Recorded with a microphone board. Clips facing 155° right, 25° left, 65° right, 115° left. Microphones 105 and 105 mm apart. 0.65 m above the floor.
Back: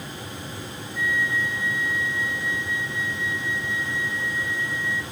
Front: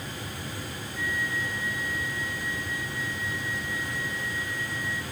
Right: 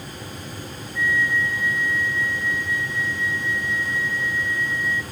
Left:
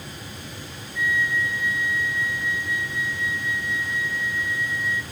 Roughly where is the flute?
Ahead left.